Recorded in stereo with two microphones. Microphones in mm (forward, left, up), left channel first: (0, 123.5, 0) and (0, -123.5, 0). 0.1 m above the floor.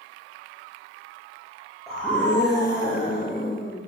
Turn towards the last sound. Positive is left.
turn(degrees=20)  # may be behind; listen again after turning